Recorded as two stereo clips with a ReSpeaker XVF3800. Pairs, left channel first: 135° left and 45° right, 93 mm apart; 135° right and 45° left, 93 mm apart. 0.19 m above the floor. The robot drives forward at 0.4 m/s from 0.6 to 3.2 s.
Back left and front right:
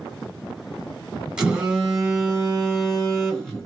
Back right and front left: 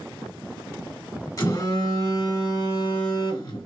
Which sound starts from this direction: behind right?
A phone buzzing, at 1.4 s.